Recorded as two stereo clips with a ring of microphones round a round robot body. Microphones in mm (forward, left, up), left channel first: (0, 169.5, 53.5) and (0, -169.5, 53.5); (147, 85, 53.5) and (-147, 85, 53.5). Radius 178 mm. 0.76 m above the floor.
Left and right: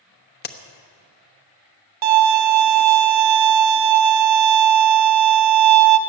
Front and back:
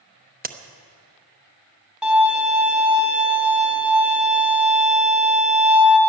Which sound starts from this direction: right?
A violin, at 2.0 s.